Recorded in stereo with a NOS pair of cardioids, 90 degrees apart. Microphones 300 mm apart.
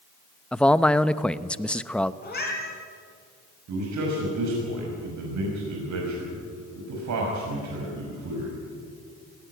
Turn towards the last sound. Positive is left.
turn(degrees=-65)